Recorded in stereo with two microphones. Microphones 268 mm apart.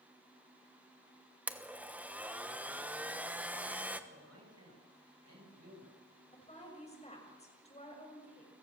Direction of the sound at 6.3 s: 25° left (ahead or behind).